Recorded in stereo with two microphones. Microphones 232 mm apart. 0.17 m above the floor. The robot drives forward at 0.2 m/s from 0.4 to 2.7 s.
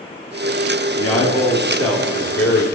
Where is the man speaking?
70° left (ahead or behind), 2.5 m; by 2.6 s 65° left (ahead or behind), 3 m.